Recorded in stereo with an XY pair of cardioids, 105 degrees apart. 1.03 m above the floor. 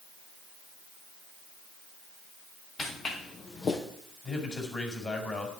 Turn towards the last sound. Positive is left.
turn(degrees=30)